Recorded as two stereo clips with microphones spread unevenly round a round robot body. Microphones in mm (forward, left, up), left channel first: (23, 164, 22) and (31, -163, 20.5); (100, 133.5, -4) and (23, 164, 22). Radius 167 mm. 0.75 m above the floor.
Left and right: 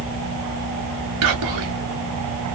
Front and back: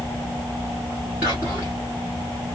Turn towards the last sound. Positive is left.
turn(degrees=-110)